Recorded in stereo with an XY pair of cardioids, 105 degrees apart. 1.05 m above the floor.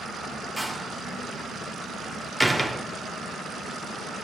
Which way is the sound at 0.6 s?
Straight ahead.